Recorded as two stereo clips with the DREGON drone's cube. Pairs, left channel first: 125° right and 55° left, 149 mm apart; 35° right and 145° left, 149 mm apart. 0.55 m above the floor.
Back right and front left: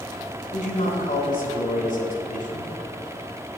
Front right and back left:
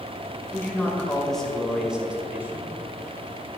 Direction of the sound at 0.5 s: 110° right.